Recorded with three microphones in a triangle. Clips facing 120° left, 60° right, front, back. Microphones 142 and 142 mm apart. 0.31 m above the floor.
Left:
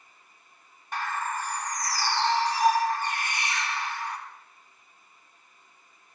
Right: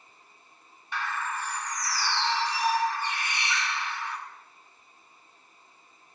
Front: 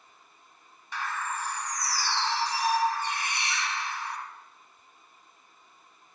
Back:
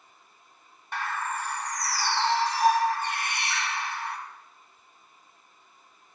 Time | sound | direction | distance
0.9 | a bird | 160° left | 1.3 m